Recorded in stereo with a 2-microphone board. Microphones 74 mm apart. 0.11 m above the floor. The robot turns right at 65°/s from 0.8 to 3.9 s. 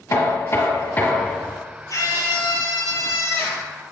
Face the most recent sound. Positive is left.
turn(degrees=-175)